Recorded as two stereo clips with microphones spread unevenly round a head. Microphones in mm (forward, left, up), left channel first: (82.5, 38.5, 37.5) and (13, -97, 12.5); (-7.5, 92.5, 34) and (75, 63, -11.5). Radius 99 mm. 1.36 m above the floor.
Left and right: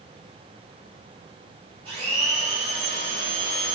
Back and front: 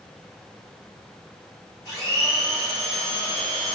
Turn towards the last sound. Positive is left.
turn(degrees=175)